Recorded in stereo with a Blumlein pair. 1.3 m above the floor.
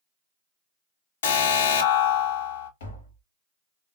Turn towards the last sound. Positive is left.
turn(degrees=60)